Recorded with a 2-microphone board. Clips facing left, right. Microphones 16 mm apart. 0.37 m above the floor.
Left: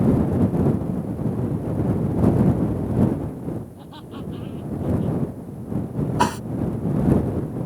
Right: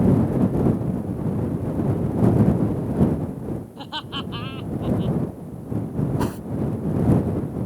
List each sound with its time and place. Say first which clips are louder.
3.8 s laughter: right 6 dB; 65° right (ahead or behind); by 5.2 s 60° right (ahead or behind)
6.2 s a whoosh: left 5 dB; 60° left (ahead or behind)